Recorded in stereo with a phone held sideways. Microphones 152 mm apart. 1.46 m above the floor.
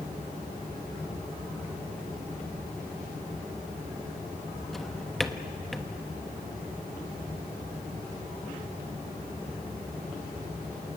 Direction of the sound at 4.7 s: Centre (ahead or behind).